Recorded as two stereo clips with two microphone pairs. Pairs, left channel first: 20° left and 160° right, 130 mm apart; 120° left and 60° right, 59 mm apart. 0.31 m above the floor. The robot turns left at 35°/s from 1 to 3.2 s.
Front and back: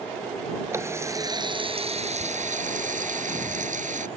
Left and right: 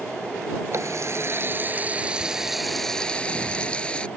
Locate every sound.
0.7 s a running tap: 95° right; by 4.1 s 170° right